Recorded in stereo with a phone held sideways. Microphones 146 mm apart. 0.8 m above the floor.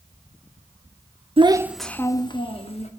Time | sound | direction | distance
1.4 | a child speaking | 40° right (ahead or behind) | 0.6 m